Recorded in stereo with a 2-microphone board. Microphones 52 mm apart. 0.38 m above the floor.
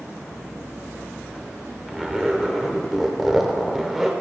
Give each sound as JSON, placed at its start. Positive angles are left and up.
{"t": 1.9, "sound": "a zipper", "side_deg": 0, "distance_m": 0.5}